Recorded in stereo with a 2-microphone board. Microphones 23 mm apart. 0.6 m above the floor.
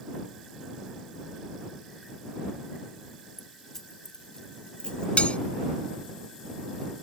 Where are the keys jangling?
10° left (ahead or behind); by 5.1 s 45° left (ahead or behind).